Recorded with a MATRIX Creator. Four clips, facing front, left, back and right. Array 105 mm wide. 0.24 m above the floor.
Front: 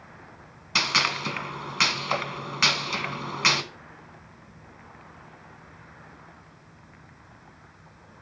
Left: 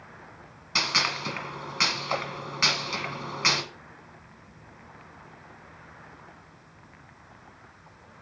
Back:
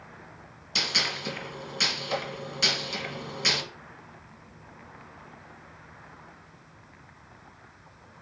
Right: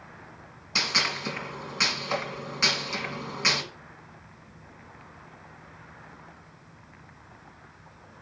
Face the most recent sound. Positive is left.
turn(degrees=25)